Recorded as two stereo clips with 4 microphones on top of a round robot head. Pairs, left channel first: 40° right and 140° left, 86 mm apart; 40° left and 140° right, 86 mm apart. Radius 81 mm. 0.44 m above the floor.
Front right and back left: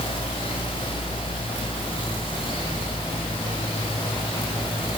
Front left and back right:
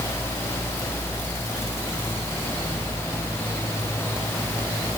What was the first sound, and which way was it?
Only background noise.